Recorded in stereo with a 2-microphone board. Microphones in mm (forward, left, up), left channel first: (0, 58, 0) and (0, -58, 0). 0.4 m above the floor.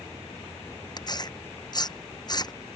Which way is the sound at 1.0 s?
35° left (ahead or behind).